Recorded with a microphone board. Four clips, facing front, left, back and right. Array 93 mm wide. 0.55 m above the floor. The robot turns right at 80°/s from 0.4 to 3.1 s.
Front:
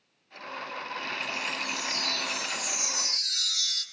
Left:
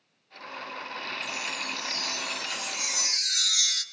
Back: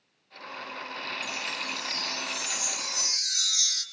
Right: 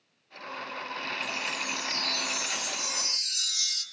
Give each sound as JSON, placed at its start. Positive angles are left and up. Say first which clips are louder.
{"t": 1.2, "sound": "a chime", "louder": "right 1 dB, front 2 dB", "azimuth_deg": -55, "distance_m": 4.5}